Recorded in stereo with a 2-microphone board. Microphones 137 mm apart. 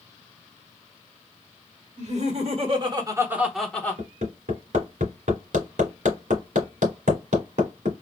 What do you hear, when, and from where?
2.0 s laughter: 60° right (ahead or behind), 1.6 m; by 4.0 s 20° left (ahead or behind), 1.1 m
4.0 s hammering: 80° right, 1.8 m